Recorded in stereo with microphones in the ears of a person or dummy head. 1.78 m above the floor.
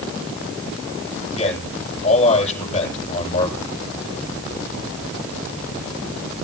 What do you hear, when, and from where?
1.3 s a man speaking: 30° left (ahead or behind), 9.5 m